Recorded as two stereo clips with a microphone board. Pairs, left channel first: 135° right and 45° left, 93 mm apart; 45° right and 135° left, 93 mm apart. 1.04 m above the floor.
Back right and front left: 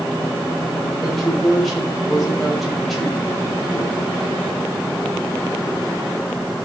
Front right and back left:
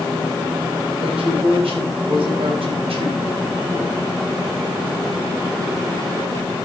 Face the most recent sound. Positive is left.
turn(degrees=135)